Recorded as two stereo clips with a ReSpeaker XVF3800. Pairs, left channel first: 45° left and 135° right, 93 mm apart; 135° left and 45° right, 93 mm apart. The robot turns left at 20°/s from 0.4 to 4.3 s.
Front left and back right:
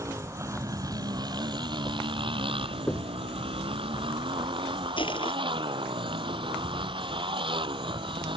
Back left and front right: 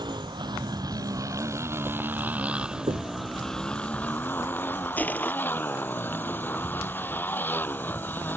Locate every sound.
0.0 s a motorcycle: 80° right; by 8.4 s 155° right
2.9 s knocking: 25° right; by 3.1 s 30° right
5.0 s crushing: 65° left